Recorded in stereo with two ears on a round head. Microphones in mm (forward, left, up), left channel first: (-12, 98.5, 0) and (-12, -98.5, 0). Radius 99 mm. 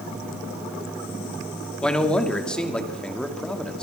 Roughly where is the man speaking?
Centre.